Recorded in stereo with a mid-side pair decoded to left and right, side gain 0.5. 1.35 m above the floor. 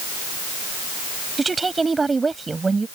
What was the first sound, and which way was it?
A woman speaking, 25° right.